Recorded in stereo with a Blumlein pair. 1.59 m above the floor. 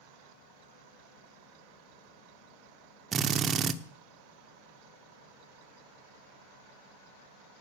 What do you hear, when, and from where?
3.1 s a drill: 25° right, 0.7 m